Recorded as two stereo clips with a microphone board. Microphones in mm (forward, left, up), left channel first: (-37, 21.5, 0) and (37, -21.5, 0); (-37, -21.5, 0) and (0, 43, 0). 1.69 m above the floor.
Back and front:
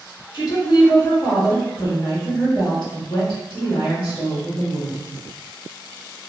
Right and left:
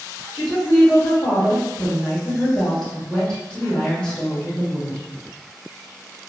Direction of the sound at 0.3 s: 165° left.